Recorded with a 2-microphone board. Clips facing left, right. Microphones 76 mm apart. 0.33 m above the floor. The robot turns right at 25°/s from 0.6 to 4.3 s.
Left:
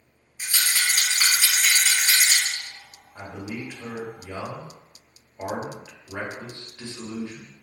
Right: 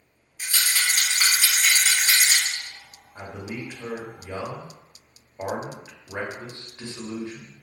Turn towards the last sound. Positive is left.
turn(degrees=-25)  # may be behind; listen again after turning